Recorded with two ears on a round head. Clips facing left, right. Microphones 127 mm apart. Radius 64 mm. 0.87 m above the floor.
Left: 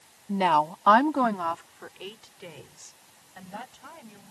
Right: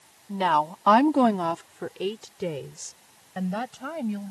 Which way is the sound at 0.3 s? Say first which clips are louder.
Even; 20° left (ahead or behind).